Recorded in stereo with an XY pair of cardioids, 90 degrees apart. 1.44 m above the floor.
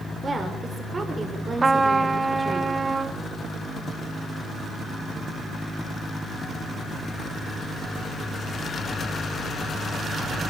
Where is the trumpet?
25° right, 1.4 m.